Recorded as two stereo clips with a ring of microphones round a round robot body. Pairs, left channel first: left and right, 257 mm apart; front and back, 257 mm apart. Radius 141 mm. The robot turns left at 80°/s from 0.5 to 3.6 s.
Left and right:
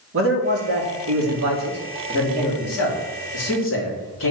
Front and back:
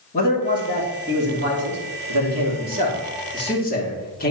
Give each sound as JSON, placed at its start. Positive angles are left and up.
{"t": 0.1, "sound": "a man speaking", "azimuth_deg": -60, "distance_m": 2.5}